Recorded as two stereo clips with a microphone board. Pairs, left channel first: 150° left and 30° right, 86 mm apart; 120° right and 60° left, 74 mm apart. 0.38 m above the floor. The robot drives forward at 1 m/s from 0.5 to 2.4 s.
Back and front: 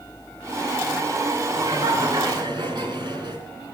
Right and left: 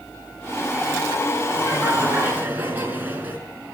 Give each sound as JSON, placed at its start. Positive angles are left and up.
{"t": 1.5, "sound": "laughter", "azimuth_deg": -5, "distance_m": 5.5}